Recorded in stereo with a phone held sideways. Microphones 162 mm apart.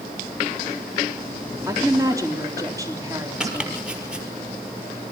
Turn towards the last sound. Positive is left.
turn(degrees=-5)  # may be behind; listen again after turning